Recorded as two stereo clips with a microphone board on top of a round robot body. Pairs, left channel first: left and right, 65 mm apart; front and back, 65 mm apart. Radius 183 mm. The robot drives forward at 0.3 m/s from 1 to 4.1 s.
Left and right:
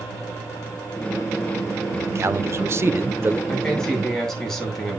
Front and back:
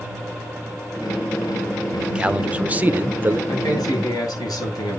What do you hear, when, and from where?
1.9 s a man speaking: 105° right, 1.1 m; by 3.4 s 130° right, 1.3 m
3.5 s a man speaking: 10° left, 9 m